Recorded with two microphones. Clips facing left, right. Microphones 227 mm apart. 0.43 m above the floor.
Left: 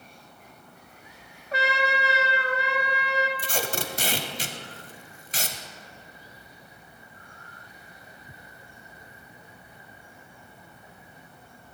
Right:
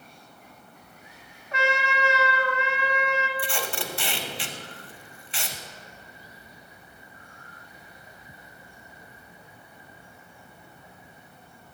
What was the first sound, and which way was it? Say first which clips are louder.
A trumpet: even; 35° left (ahead or behind).